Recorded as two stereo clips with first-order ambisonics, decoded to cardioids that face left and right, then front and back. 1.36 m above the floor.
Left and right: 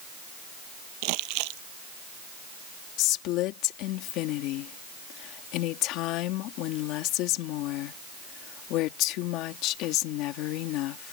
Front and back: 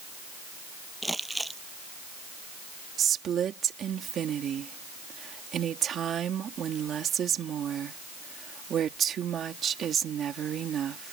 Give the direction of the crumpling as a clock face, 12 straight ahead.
3 o'clock.